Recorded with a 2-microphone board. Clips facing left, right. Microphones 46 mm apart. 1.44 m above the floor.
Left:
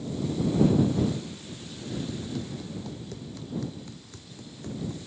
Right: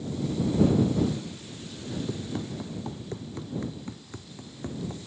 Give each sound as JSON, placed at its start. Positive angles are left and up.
{"t": 2.1, "sound": "running footsteps", "side_deg": -35}